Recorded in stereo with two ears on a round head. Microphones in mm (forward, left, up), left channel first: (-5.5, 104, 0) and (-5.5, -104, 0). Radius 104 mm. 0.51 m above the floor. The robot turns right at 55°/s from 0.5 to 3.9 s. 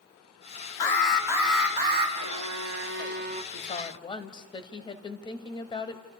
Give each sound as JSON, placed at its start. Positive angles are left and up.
{"t": 0.8, "sound": "an alarm", "azimuth_deg": 165, "distance_m": 5.0}
{"t": 2.2, "sound": "a violin", "azimuth_deg": -100, "distance_m": 0.8}
{"t": 3.5, "sound": "a woman speaking", "side_deg": 40, "distance_m": 2.5}